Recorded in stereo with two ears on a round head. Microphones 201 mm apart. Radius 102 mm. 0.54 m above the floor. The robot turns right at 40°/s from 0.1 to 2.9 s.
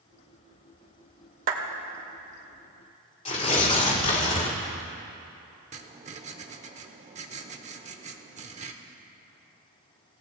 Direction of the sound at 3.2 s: 30° left (ahead or behind).